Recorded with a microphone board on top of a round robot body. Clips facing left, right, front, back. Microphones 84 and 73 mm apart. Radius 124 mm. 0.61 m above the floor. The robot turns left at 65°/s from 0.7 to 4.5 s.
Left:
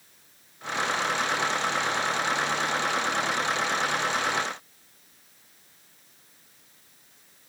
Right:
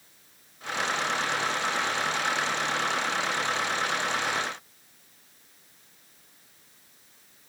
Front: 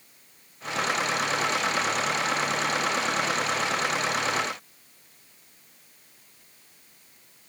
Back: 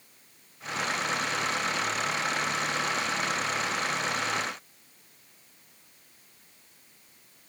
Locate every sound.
Only background noise.